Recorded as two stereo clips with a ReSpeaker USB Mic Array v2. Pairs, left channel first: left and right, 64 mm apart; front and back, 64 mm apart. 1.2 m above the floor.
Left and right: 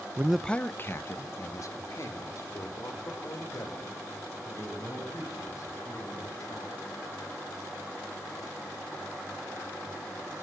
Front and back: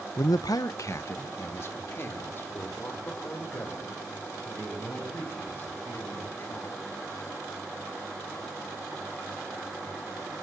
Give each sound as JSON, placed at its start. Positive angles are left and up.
{"t": 0.2, "sound": "a man speaking", "azimuth_deg": -35, "distance_m": 0.5}